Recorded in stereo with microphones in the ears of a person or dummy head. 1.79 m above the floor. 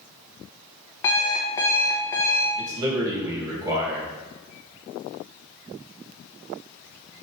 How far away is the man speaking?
About 2.5 m.